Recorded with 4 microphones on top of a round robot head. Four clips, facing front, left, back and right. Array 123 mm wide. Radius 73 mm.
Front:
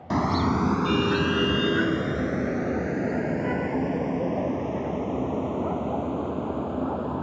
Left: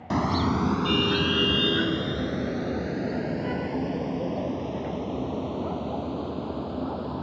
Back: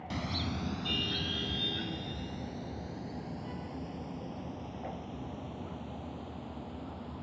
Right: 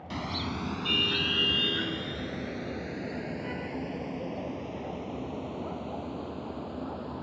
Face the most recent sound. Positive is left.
turn(degrees=20)